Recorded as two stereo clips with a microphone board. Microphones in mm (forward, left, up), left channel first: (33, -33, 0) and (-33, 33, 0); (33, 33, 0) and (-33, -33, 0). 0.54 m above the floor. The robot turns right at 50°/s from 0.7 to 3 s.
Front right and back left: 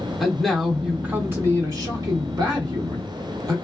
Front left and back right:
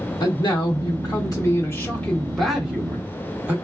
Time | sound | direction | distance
0.2 | a man speaking | 50° left | 1.3 m